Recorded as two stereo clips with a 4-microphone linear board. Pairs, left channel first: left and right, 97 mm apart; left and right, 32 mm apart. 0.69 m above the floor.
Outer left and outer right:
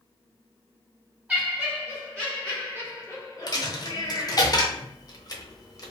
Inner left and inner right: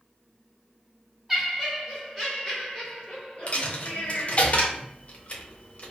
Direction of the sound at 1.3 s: 10° right (ahead or behind).